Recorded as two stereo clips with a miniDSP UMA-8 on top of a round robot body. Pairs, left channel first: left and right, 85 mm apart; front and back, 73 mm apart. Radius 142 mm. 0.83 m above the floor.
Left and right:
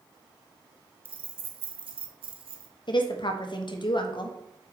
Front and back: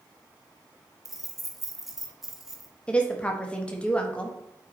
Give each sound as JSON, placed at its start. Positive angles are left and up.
{"t": 1.1, "sound": "keys jangling", "azimuth_deg": -95, "distance_m": 1.3}
{"t": 2.9, "sound": "a woman speaking", "azimuth_deg": 70, "distance_m": 1.4}